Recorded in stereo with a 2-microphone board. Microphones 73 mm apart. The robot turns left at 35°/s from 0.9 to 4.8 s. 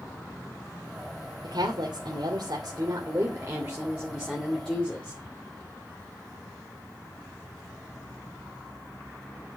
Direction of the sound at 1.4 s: 75° right.